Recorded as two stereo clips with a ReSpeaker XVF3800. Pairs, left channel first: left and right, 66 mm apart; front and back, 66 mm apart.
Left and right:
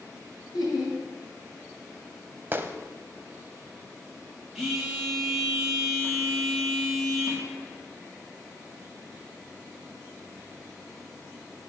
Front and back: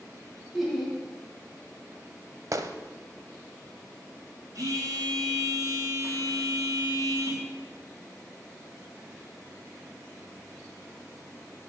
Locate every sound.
0.5 s laughter: 90° left, 3 m
2.5 s a gunshot: 145° right, 0.6 m
4.5 s a phone buzzing: straight behind, 2.5 m